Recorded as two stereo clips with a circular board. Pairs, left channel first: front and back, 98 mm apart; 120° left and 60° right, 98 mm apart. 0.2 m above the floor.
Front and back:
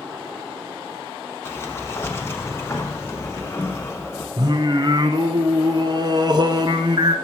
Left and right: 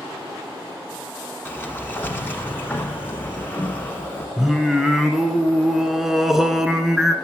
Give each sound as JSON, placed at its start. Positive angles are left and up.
{"t": 1.4, "sound": "a sliding door", "azimuth_deg": 55, "distance_m": 0.9}
{"t": 4.4, "sound": "singing", "azimuth_deg": -145, "distance_m": 0.7}